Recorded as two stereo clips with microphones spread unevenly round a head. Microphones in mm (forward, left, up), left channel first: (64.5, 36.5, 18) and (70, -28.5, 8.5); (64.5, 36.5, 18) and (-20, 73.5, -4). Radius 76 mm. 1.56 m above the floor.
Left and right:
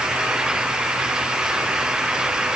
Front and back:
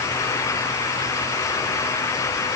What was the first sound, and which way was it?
Only background noise.